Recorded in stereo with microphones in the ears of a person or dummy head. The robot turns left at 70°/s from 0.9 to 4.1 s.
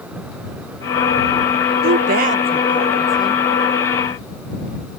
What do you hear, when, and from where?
1.8 s a woman speaking: 70° right (ahead or behind); by 3.4 s 40° left (ahead or behind)